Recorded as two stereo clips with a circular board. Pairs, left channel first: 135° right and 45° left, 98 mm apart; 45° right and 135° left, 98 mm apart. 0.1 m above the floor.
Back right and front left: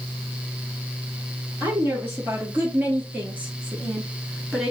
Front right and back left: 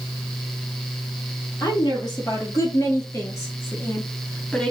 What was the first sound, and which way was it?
A woman speaking, 15° right.